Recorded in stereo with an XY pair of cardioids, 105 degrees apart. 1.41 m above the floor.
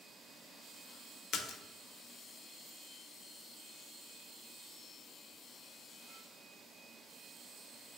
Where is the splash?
65° left, 0.6 m.